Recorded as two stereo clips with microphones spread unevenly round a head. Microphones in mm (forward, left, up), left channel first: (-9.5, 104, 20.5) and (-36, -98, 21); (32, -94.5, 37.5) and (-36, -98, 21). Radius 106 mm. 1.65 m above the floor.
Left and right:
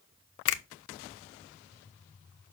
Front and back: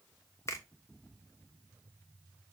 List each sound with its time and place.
0.5 s a finger snap: 70° left, 0.8 m